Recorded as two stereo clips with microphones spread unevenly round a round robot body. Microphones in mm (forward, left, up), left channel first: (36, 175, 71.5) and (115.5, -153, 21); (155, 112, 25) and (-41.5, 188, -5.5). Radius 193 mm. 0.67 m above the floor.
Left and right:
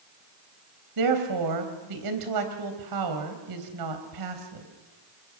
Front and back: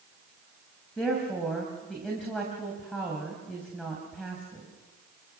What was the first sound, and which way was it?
A woman speaking, 110° right.